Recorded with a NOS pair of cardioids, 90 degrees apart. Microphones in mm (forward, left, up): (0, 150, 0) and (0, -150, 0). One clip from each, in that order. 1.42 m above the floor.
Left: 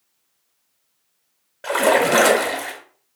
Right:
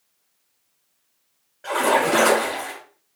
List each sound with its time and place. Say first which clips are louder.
1.6 s a splash: left 3 dB; 55° left, 1.7 m